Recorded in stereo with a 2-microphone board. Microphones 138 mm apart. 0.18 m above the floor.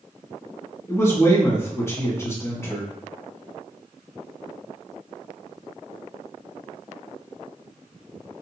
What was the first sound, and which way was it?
A man speaking, 20° left (ahead or behind).